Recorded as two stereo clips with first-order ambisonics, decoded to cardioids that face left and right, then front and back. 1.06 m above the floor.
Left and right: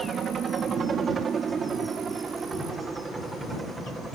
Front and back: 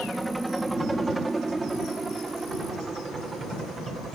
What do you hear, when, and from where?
0.0 s a helicopter: 105° right; by 4.2 s 160° right